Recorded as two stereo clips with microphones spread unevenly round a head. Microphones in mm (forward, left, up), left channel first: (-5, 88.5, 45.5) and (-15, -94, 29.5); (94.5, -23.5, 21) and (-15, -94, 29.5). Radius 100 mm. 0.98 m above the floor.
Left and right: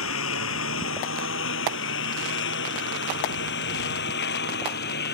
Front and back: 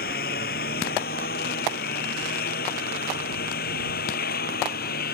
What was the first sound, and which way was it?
A lawn mower, 70° left.